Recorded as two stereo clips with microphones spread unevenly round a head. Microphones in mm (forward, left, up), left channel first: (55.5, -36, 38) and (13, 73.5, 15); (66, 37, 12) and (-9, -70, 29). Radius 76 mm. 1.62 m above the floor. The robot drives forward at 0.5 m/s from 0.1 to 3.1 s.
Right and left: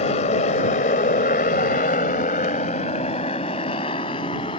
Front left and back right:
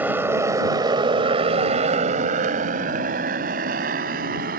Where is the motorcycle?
55° right; by 4.6 s 125° right.